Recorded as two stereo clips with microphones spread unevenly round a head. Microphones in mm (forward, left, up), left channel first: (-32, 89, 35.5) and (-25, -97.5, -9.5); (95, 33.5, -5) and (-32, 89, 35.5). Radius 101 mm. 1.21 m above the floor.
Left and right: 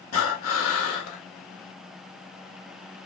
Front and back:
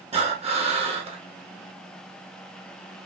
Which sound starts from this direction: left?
Breathing, at 0.1 s.